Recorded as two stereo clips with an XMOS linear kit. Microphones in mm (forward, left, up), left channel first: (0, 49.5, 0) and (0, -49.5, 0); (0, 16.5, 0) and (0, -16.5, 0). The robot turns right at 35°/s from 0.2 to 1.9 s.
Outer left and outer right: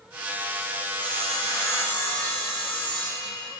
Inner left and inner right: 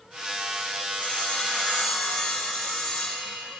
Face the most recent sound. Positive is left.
turn(degrees=160)